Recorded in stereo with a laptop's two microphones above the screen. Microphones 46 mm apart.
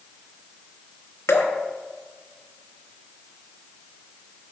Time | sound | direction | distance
1.3 | dripping | 85° left | 1.2 m